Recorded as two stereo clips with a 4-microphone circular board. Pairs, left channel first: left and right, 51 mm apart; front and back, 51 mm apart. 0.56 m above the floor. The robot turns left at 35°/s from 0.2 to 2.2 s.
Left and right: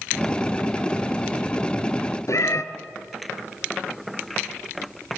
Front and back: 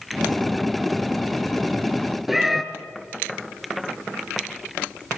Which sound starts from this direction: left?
A cat meowing, at 2.3 s.